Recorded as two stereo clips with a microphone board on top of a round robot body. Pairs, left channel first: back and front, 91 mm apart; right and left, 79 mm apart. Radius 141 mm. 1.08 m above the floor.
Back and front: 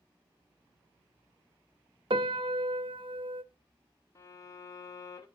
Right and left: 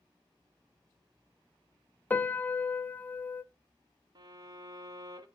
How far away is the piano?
About 0.6 m.